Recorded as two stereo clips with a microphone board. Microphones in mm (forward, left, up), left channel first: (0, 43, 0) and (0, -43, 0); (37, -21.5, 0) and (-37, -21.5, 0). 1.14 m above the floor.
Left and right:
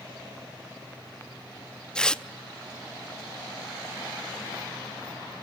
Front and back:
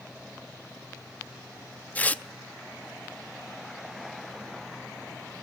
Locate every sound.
1.9 s tearing paper: 25° left, 0.5 m